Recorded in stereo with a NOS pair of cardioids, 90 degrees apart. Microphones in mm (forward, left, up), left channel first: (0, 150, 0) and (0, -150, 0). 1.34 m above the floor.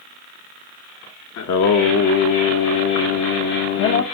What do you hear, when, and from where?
1.4 s singing: 65° left, 1.4 m